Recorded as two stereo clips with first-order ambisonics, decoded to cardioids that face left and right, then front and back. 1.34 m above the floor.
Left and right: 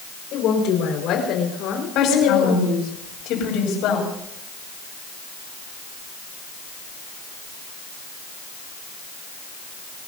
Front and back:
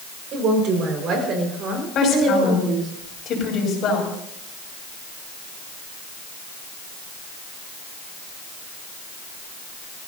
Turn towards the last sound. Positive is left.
turn(degrees=50)